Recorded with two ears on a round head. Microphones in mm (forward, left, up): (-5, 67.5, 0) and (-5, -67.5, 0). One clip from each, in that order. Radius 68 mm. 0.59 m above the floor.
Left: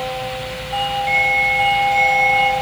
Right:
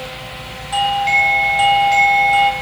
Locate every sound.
0.7 s a doorbell: 60° right (ahead or behind), 5 m